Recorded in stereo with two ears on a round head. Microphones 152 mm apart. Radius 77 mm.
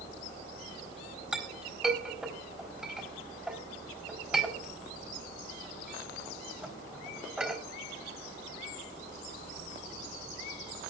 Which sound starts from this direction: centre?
A clink, at 1.3 s.